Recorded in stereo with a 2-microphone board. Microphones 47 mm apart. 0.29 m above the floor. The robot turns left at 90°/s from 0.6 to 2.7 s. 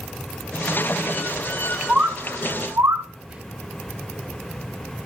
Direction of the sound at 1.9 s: 20° right (ahead or behind).